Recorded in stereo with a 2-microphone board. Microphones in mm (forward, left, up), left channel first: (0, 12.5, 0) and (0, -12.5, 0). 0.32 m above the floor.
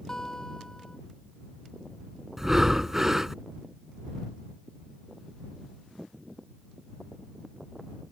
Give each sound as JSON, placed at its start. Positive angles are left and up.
{"t": 0.1, "sound": "a guitar", "side_deg": 25}
{"t": 2.4, "sound": "breathing", "side_deg": -15}